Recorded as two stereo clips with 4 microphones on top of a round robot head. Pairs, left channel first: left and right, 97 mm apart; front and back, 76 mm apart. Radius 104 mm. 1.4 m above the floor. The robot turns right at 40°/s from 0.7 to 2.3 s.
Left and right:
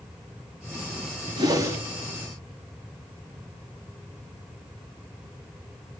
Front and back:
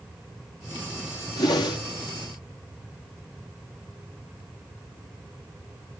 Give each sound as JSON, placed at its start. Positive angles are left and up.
{"t": 1.4, "sound": "a whoosh", "azimuth_deg": -40, "distance_m": 1.2}